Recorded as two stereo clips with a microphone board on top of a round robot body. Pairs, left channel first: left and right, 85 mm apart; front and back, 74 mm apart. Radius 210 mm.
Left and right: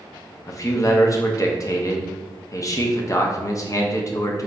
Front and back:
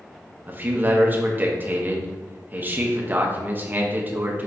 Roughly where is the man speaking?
Behind left.